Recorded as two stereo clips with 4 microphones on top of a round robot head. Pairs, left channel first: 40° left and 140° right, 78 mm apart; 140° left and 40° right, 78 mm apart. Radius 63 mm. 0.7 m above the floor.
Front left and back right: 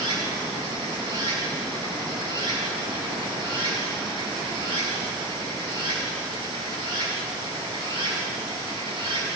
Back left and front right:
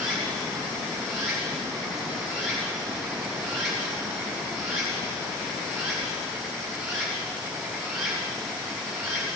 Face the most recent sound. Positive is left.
turn(degrees=-130)